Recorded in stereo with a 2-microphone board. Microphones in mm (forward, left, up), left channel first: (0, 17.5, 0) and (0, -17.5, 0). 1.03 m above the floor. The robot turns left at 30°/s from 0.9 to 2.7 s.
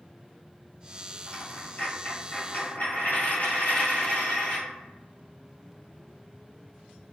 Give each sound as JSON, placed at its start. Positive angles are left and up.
{"t": 1.3, "sound": "a dropped coin", "azimuth_deg": 125, "distance_m": 1.5}